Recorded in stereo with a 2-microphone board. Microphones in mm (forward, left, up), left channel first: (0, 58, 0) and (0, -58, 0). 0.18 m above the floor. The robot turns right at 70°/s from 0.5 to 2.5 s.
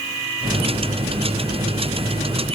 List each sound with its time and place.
Only background noise.